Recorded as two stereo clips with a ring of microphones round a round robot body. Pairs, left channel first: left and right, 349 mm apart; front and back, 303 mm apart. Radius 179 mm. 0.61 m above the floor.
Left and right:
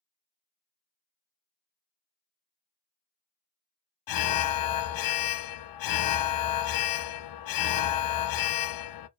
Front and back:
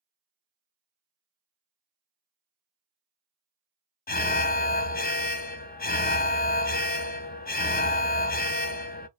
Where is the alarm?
60° left, 0.6 m.